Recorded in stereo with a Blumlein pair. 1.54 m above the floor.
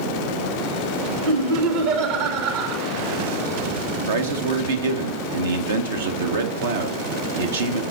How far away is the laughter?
About 2.5 m.